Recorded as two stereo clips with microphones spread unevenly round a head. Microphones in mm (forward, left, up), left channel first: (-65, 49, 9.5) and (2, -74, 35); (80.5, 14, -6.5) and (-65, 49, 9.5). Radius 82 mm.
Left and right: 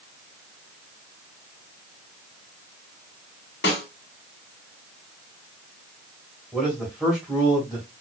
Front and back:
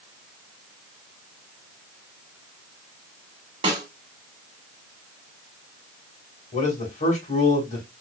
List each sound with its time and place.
3.6 s a snare drum: 120° left, 2 m
6.5 s a man speaking: 25° left, 2 m